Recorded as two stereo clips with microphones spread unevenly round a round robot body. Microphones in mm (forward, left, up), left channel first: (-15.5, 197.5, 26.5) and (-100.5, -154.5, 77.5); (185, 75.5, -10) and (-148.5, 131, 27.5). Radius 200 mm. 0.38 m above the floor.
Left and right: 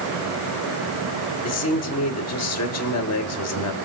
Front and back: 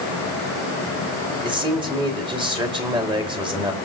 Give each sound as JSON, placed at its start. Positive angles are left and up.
{"t": 1.4, "sound": "a man speaking", "azimuth_deg": 95, "distance_m": 1.9}